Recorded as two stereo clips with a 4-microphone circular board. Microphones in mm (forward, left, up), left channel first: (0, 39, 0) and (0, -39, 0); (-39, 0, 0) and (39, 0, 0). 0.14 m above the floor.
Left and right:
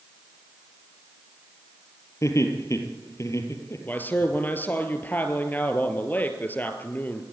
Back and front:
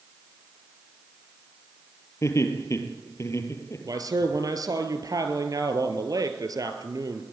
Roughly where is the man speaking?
Ahead left.